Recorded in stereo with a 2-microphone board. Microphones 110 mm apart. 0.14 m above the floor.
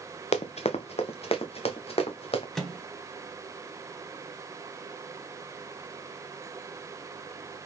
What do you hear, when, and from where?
0.3 s running footsteps: 75° left (ahead or behind), 0.6 m; by 2.5 s 60° left (ahead or behind), 1.7 m
2.5 s a microwave: 5° left (ahead or behind), 1.3 m